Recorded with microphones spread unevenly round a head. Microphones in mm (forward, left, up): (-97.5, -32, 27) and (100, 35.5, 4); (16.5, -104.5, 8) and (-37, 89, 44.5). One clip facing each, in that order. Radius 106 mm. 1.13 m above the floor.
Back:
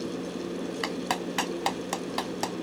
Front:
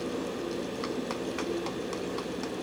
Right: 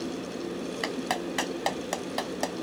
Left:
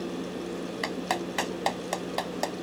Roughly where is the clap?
Behind.